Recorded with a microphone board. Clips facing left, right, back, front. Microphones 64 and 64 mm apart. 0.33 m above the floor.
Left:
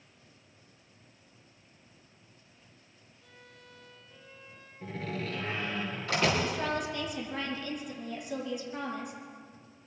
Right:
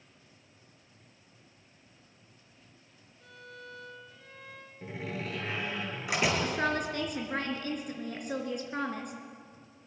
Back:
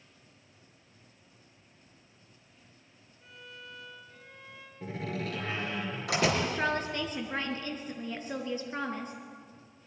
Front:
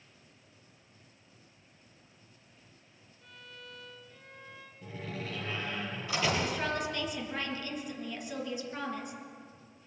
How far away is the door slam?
About 5.5 m.